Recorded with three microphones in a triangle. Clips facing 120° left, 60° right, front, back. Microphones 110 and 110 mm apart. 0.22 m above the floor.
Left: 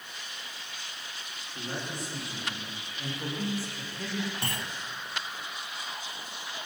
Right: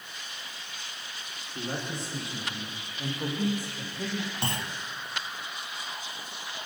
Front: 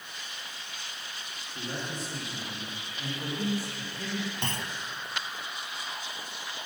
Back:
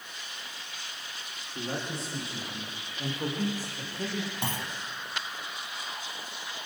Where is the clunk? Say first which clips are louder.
Right 3 dB, back 1 dB; 105° right, 1.1 m.